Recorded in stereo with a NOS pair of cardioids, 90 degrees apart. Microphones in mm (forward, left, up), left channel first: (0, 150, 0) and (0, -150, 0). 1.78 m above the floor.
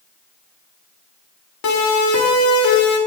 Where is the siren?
65° left, 5.5 m.